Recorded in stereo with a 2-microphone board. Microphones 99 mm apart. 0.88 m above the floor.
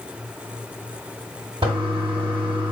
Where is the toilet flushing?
70° right (ahead or behind), 1.5 m.